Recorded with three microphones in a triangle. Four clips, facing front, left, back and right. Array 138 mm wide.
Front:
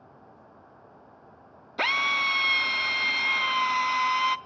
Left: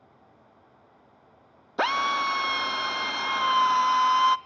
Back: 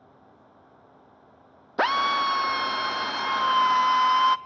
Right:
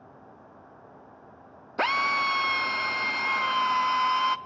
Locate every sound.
1.8 s a drill: 165° left, 0.5 m